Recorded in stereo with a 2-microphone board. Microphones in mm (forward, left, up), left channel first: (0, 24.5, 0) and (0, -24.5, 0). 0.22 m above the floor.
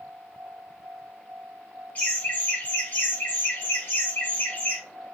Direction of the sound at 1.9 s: 35° left (ahead or behind).